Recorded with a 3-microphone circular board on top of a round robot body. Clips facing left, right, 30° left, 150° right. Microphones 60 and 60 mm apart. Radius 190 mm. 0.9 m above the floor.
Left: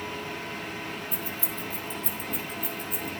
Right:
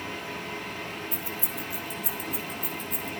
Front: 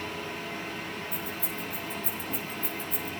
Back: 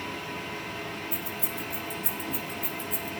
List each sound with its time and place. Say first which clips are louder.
1.1 s keys jangling: even, even; 160° right, 3 m; by 3.1 s 175° left, 4 m